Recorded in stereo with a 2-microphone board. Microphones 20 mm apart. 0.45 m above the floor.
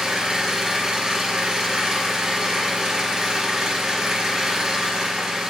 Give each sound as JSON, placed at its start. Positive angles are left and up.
{"t": 0.0, "sound": "an engine running", "side_deg": -30, "distance_m": 3.0}